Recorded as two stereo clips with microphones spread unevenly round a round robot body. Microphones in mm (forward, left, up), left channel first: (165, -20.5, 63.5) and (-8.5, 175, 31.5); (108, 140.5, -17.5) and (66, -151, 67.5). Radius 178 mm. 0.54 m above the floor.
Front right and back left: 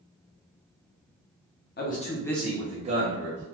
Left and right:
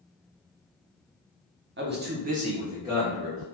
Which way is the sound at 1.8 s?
45° right.